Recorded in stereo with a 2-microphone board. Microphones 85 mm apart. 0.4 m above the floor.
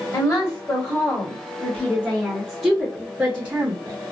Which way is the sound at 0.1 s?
40° left (ahead or behind).